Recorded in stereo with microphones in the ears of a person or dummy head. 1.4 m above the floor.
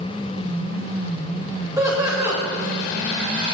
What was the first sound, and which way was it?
Laughter, 10° right (ahead or behind).